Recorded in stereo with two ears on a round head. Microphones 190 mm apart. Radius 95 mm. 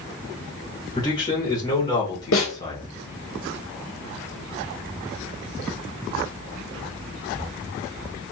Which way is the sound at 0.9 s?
20° left (ahead or behind).